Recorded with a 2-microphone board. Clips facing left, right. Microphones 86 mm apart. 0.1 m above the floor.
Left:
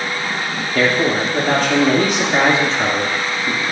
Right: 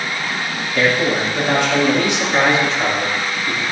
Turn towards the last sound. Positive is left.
turn(degrees=20)  # may be behind; listen again after turning